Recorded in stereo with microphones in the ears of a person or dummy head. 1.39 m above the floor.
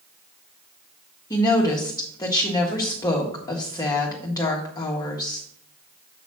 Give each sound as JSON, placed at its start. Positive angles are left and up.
{"t": 1.3, "sound": "a woman speaking", "side_deg": 20, "distance_m": 1.5}